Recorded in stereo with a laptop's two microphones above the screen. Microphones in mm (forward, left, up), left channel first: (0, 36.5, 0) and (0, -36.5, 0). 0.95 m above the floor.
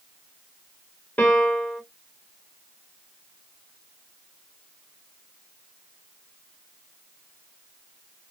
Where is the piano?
20° left (ahead or behind), 2.5 m.